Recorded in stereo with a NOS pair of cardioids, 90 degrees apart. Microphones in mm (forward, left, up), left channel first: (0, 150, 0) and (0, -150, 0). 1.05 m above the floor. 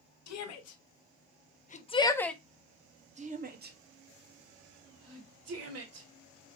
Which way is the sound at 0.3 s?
65° left.